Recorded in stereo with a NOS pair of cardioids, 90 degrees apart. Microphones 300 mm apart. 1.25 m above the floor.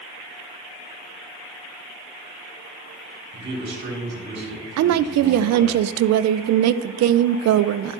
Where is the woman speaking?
60° right, 0.6 m.